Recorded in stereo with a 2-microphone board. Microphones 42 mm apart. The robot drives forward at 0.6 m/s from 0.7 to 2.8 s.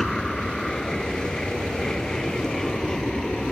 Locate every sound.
0.0 s an aircraft: 10° left (ahead or behind); by 3.5 s 15° left (ahead or behind)